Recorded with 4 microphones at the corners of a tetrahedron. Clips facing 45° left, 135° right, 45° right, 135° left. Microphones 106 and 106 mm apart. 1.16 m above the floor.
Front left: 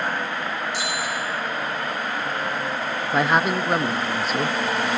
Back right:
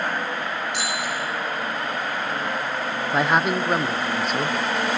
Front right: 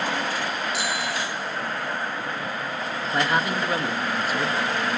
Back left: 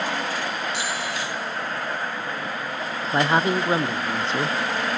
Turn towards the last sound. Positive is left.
turn(degrees=135)